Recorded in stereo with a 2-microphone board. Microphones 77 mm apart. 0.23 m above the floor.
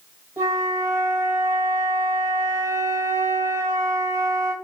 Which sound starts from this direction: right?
A flute, at 0.4 s.